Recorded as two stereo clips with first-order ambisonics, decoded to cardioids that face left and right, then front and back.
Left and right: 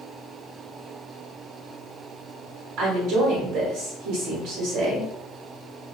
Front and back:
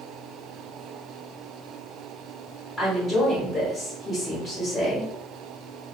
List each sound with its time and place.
2.8 s a woman speaking: 75° right, 1.1 m